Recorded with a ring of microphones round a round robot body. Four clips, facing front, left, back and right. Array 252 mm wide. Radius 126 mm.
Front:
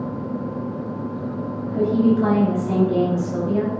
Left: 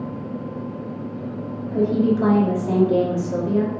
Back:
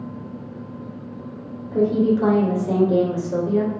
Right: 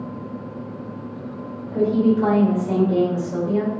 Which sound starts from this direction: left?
A woman speaking, at 1.7 s.